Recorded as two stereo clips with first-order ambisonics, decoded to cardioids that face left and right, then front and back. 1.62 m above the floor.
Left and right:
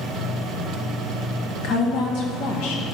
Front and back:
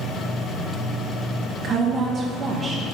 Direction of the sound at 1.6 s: 120° left.